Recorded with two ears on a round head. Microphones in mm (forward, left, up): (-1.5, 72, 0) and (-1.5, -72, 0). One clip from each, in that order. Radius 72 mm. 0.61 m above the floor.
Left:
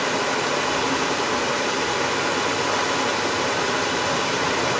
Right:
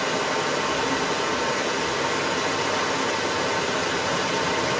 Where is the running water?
10° left (ahead or behind), 1.9 m.